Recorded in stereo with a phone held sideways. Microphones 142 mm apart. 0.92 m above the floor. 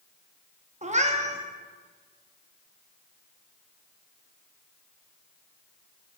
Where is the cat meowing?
55° right (ahead or behind), 0.6 m.